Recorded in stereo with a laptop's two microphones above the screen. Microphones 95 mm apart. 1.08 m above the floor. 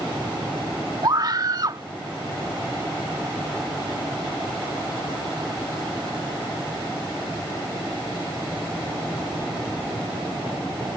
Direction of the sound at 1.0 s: 45° right (ahead or behind).